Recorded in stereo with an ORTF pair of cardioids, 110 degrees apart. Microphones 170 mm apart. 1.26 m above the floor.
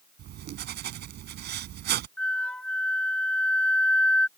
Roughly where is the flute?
Ahead.